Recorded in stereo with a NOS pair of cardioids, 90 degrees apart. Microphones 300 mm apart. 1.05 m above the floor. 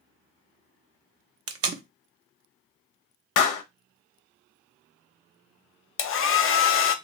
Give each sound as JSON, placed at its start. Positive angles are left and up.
{"t": 1.5, "sound": "tape being pulled", "azimuth_deg": -45, "distance_m": 0.6}
{"t": 3.4, "sound": "a clap", "azimuth_deg": 65, "distance_m": 0.6}
{"t": 6.0, "sound": "a hair dryer", "azimuth_deg": 45, "distance_m": 0.6}